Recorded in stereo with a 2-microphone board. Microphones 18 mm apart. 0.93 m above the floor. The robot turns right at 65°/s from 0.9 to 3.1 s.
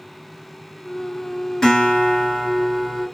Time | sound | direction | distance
1.6 | a guitar | 25° left | 1.8 m